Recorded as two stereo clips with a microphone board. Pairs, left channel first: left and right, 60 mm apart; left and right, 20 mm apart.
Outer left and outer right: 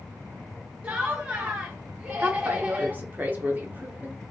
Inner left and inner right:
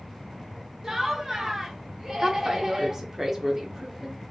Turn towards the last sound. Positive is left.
turn(degrees=-30)  # may be behind; listen again after turning